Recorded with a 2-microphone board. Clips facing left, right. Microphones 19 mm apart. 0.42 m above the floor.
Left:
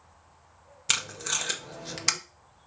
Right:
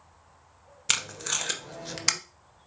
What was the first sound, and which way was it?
Tape being pulled, centre (ahead or behind).